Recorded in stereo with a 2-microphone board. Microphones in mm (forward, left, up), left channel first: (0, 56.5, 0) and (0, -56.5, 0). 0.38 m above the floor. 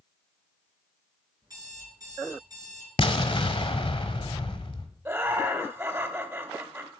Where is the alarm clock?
35° right (ahead or behind), 3.5 m.